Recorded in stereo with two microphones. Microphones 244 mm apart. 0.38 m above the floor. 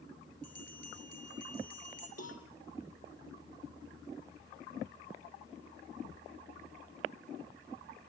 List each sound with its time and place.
0.4 s a bell: 80° left, 6 m
2.2 s a cowbell: 90° left, 3 m